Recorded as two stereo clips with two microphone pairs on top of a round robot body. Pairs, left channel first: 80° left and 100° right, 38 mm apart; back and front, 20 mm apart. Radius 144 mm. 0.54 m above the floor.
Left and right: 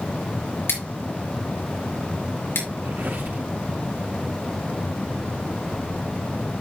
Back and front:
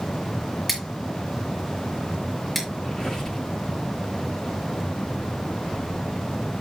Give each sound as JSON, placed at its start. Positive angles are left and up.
{"t": 0.7, "sound": "scissors", "azimuth_deg": 90, "distance_m": 5.5}
{"t": 2.8, "sound": "a squeak", "azimuth_deg": -125, "distance_m": 5.0}